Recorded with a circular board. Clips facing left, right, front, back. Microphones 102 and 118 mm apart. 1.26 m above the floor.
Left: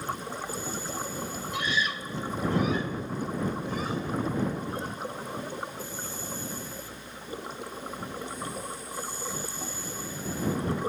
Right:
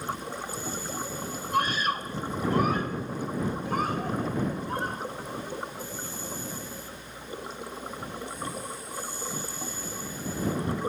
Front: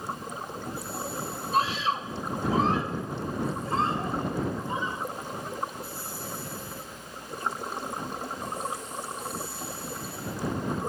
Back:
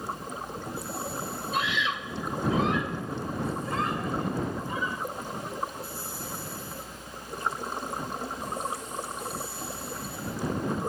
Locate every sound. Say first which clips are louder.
1.5 s a scream: right 5 dB, front 4 dB; 50° right; by 5.0 s 60° right